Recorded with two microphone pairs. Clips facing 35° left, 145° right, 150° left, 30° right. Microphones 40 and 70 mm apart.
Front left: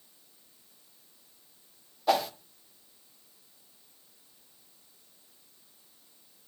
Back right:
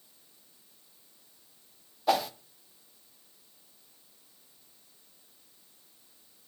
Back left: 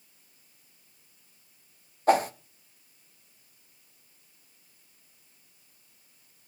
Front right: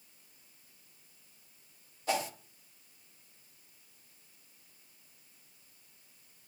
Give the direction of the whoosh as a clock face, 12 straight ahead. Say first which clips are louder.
Front left 1 dB, back left 11 dB; 8 o'clock.